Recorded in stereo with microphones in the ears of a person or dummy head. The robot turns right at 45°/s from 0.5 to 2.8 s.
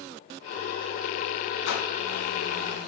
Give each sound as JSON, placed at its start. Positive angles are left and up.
{"t": 1.6, "sound": "a whoosh", "side_deg": 70, "distance_m": 2.5}